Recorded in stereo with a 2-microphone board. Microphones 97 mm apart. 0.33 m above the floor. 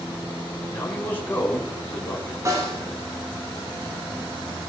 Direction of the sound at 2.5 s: 30° right (ahead or behind).